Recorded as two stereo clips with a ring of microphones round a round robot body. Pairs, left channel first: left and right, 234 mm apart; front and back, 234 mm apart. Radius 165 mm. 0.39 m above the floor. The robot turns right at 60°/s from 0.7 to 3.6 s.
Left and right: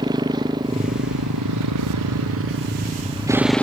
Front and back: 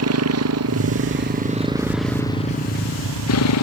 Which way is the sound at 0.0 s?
170° right.